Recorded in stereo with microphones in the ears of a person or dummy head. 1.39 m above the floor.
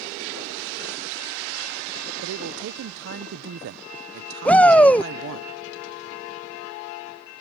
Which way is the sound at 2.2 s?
60° right (ahead or behind).